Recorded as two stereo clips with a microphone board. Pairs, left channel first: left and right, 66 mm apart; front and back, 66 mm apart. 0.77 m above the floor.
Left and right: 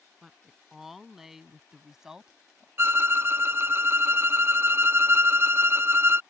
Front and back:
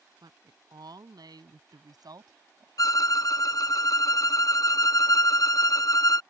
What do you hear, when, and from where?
0.2 s a woman speaking: straight behind; by 2.7 s 170° right
2.8 s a violin: 35° right